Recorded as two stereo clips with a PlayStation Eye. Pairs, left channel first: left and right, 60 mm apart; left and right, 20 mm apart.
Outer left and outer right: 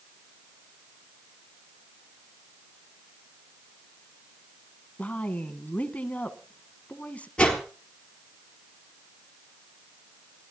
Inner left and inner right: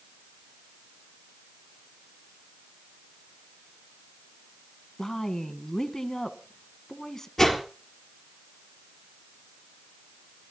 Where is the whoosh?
15° left (ahead or behind), 4 m.